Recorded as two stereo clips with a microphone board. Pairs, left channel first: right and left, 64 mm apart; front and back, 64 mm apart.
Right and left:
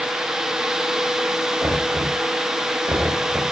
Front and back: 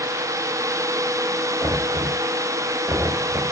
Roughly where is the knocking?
Behind left.